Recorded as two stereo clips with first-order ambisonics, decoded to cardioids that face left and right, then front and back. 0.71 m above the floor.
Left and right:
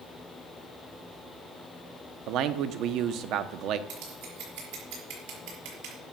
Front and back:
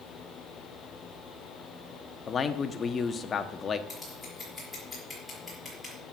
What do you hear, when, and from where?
2.3 s a man speaking: 65° right, 0.9 m
3.9 s scissors: 85° right, 6.5 m